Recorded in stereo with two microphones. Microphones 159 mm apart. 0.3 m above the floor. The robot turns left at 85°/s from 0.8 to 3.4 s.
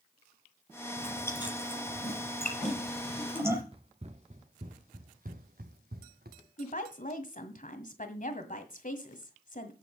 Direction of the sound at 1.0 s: 10° right (ahead or behind).